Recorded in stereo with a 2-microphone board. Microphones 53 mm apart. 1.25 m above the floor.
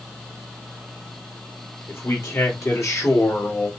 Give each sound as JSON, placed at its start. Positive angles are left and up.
{"t": 1.9, "sound": "a man speaking", "side_deg": 60, "distance_m": 3.0}